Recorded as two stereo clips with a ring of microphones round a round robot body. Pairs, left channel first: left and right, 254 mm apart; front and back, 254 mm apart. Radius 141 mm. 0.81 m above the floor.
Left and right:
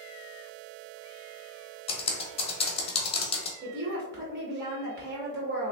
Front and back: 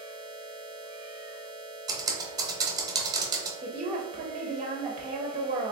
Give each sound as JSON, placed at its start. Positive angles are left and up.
{"t": 1.9, "sound": "typing on a keyboard", "azimuth_deg": 125, "distance_m": 0.8}
{"t": 3.6, "sound": "a woman speaking", "azimuth_deg": -125, "distance_m": 0.8}